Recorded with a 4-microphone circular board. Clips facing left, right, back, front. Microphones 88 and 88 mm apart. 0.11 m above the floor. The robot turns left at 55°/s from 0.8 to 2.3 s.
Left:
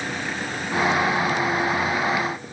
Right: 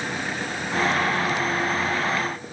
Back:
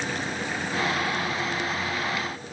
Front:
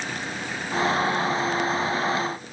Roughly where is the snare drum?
No snare drum in this recording.